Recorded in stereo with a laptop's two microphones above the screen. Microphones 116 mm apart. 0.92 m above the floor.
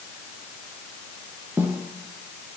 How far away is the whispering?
No whispering in this recording.